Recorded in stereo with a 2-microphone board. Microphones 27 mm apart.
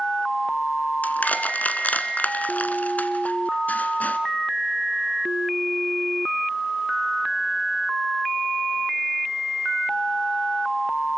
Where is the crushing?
75° left (ahead or behind), 1.4 m.